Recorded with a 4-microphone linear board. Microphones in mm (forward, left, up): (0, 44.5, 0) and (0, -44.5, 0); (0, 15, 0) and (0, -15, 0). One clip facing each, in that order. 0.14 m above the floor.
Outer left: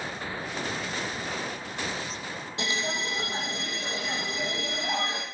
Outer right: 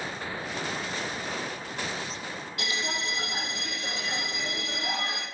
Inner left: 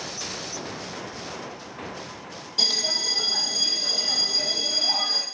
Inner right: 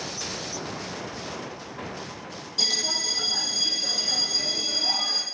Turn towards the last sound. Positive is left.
turn(degrees=25)  # may be behind; listen again after turning